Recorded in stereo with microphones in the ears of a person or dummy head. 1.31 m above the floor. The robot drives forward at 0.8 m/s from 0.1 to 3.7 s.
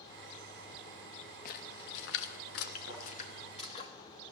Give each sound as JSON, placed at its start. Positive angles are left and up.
{"t": 1.4, "sound": "a splash", "side_deg": 55, "distance_m": 1.1}
{"t": 2.9, "sound": "a thud", "side_deg": -70, "distance_m": 6.5}